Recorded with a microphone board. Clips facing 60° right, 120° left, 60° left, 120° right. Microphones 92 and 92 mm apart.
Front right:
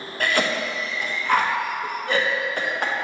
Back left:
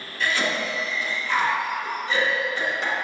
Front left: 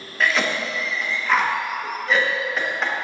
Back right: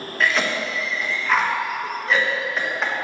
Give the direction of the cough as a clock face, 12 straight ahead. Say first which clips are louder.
Front right 2 dB, even; 1 o'clock.